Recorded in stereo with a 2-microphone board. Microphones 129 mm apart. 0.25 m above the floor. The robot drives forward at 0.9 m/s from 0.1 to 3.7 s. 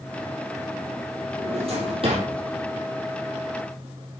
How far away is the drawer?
About 4 m.